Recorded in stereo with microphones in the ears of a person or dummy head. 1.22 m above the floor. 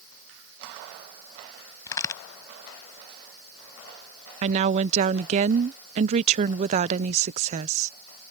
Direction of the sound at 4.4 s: 35° right (ahead or behind).